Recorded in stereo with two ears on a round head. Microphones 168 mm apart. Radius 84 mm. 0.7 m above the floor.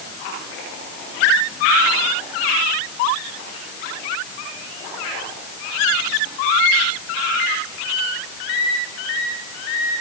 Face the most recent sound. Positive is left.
No sound to turn to.